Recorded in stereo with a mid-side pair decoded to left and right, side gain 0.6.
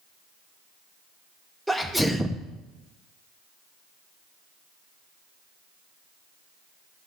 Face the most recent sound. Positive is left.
turn(degrees=-5)